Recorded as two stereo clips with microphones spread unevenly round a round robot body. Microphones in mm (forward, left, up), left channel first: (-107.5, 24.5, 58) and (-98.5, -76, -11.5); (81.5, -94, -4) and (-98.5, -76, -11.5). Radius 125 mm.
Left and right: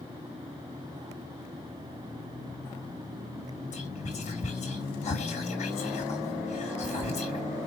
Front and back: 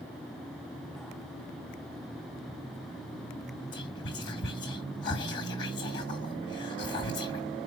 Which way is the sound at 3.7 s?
45° left.